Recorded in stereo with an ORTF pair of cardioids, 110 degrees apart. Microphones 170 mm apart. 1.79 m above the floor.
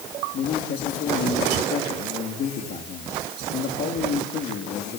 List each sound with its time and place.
0.3 s a man speaking: 60° left, 3.5 m